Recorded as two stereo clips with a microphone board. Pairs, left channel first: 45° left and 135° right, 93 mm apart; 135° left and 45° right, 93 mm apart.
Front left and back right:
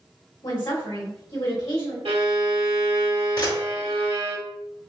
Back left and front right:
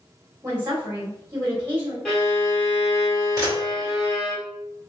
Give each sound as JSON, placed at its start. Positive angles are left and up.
{"t": 0.4, "sound": "a woman speaking", "azimuth_deg": 20, "distance_m": 1.8}
{"t": 2.0, "sound": "a violin", "azimuth_deg": -140, "distance_m": 1.3}
{"t": 3.4, "sound": "a camera shutter", "azimuth_deg": 5, "distance_m": 1.7}